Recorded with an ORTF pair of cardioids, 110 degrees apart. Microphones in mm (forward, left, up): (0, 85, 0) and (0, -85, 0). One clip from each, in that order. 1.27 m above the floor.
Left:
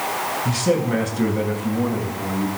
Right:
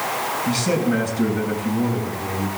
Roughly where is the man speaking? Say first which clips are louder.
Left 2 dB; ahead left.